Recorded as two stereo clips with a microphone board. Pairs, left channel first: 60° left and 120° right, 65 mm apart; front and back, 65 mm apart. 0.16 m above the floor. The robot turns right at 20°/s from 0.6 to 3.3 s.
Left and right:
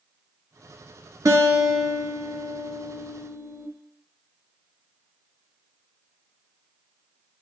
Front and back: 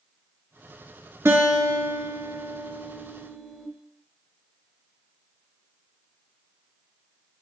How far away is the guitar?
About 0.6 m.